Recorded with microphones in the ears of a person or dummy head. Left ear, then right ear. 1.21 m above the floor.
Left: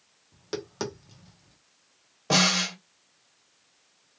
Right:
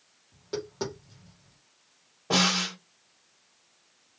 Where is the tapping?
55° left (ahead or behind), 1.0 m.